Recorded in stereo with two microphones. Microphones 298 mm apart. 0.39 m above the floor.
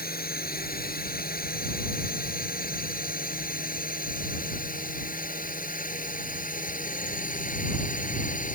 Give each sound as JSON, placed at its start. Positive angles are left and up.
{"t": 0.0, "sound": "a drone", "side_deg": 30}